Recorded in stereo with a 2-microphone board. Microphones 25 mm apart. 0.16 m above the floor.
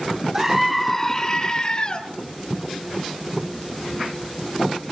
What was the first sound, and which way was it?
A scream, 20° right (ahead or behind).